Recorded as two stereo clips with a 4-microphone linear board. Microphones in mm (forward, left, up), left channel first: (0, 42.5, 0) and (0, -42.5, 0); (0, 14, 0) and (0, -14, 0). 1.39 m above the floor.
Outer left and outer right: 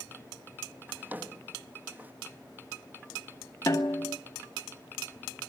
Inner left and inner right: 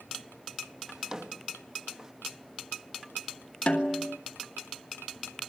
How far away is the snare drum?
About 2 m.